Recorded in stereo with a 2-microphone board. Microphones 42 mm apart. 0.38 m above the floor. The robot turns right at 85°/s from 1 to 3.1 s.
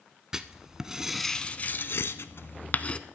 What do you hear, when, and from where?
0.3 s writing: 15° right (ahead or behind), 0.5 m; by 3.0 s 25° left (ahead or behind), 0.5 m